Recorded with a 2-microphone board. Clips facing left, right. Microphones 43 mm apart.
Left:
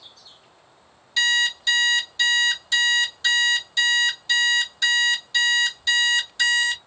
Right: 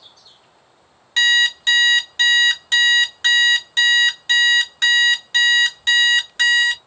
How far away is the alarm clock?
About 0.9 m.